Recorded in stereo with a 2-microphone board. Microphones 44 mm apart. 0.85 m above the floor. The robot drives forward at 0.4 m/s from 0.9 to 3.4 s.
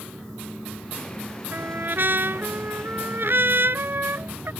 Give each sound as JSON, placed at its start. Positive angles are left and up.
{"t": 1.5, "sound": "a trumpet", "side_deg": -50}